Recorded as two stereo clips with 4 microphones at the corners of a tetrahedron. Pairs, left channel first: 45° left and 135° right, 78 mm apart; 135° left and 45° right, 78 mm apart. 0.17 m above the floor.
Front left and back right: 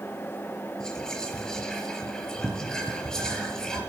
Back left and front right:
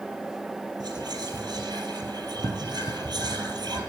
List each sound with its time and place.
0.8 s whispering: 35° right, 4 m